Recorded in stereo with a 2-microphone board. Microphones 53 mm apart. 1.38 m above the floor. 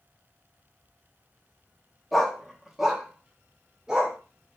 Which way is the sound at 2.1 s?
Centre (ahead or behind).